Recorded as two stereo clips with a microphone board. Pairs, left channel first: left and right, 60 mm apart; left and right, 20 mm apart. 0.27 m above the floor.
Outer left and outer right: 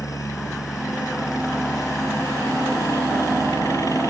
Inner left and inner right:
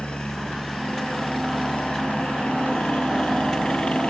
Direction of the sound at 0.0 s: 70° left (ahead or behind).